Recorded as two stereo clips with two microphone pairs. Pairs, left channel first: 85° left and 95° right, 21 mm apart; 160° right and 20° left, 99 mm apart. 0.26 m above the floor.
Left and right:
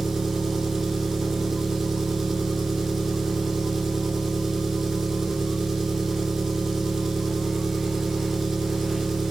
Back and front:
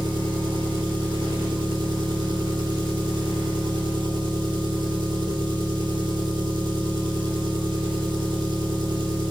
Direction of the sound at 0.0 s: 20° right.